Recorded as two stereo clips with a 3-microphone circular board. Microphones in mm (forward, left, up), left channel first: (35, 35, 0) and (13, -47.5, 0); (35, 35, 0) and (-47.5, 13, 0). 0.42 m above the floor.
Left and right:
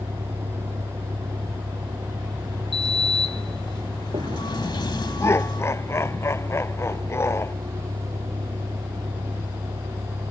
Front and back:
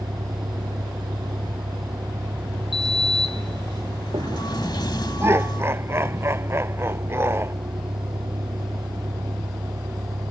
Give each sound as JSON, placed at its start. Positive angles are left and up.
{"t": 0.0, "sound": "a vehicle", "azimuth_deg": -125}
{"t": 2.7, "sound": "a sliding door", "azimuth_deg": 50}
{"t": 5.2, "sound": "laughter", "azimuth_deg": 135}